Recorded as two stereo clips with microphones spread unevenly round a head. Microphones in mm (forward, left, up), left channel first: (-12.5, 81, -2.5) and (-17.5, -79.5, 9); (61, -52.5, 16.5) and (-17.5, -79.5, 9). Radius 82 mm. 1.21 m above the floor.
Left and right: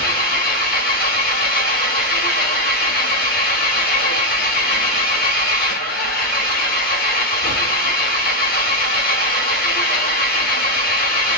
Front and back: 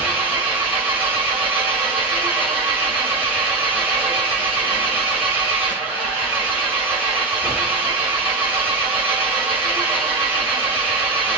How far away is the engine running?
About 2 m.